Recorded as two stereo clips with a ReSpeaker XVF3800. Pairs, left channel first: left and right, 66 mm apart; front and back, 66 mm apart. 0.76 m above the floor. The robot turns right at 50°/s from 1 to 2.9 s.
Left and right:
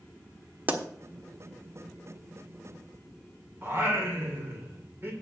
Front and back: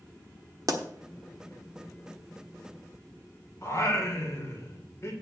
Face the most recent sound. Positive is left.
turn(degrees=-35)